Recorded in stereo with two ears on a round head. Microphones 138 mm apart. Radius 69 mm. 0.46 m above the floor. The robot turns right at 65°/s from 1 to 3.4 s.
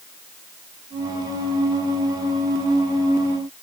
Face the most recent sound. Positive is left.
No sound to turn to.